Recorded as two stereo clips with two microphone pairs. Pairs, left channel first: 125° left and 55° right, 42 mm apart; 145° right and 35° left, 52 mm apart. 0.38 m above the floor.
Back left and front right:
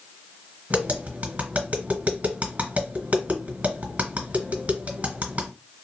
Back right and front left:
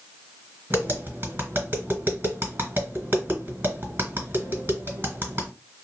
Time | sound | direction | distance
0.7 | tapping | 5° right | 1.8 m